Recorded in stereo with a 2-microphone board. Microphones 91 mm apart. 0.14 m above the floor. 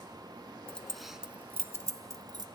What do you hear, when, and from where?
0.7 s keys jangling: 15° left (ahead or behind), 0.9 m; by 2.5 s 50° right (ahead or behind), 1.2 m